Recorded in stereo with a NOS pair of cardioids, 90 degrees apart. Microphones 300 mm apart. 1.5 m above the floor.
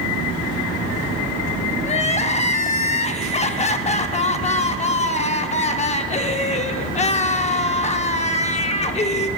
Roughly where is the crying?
Ahead.